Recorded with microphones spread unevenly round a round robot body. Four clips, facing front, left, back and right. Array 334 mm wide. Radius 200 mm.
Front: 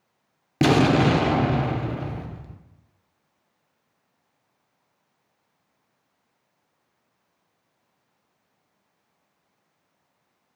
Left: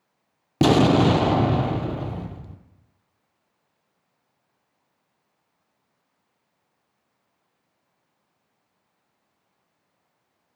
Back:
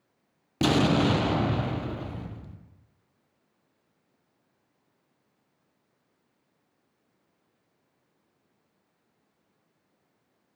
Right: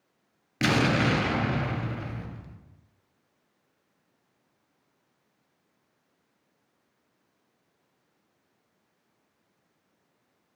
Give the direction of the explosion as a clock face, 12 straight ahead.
10 o'clock.